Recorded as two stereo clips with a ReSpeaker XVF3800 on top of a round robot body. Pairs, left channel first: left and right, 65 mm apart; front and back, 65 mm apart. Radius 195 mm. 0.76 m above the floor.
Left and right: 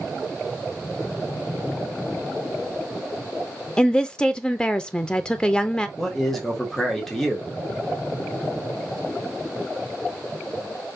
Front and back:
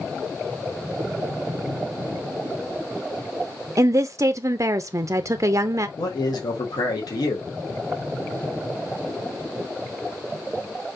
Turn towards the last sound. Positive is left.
turn(degrees=5)